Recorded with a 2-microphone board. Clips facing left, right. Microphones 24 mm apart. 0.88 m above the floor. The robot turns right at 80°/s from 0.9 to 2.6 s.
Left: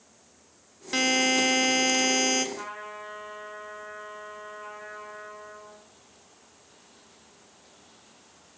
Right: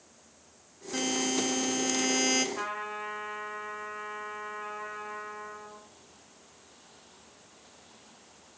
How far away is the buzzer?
About 1.1 m.